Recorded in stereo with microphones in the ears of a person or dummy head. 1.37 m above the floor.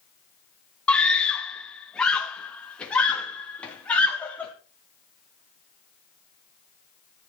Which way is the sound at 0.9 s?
5° left (ahead or behind).